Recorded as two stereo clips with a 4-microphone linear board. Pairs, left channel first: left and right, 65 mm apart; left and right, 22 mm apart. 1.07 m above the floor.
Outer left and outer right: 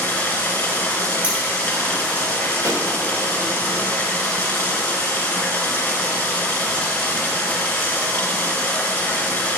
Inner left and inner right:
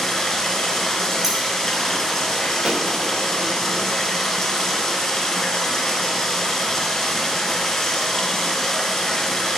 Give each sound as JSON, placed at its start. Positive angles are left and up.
{"t": 0.0, "sound": "running water", "side_deg": 20, "distance_m": 2.5}
{"t": 1.2, "sound": "scissors", "side_deg": -20, "distance_m": 2.0}
{"t": 2.6, "sound": "a pop", "side_deg": -55, "distance_m": 1.1}